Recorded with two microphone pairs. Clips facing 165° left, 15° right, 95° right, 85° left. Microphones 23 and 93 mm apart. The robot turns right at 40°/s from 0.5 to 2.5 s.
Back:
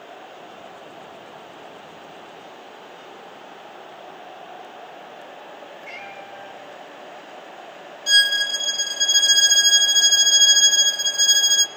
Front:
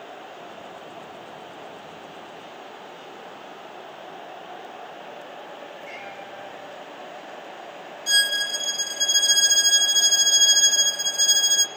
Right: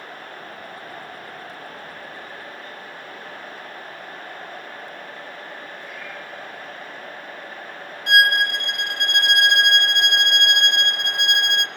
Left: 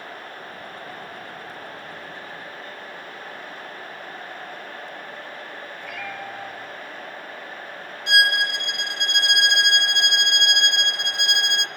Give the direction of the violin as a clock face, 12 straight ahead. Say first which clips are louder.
Back 4 dB, right 3 dB; 5 o'clock.